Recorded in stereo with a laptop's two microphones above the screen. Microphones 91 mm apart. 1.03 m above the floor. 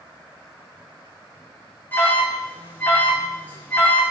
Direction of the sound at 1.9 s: 20° left (ahead or behind).